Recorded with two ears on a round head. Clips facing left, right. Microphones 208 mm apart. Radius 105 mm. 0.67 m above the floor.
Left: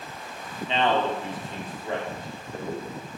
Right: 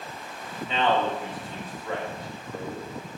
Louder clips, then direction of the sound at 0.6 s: Left 1 dB; 25° left (ahead or behind).